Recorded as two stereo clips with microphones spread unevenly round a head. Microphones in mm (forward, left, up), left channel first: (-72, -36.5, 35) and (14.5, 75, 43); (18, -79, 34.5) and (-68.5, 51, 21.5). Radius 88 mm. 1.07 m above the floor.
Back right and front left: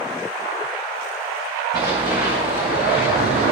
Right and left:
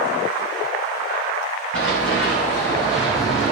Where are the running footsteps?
15° right, 5 m; by 3.5 s 5° right, 4 m.